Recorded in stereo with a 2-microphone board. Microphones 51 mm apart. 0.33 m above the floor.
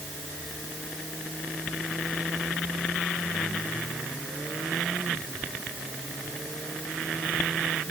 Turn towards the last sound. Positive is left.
No sound to turn to.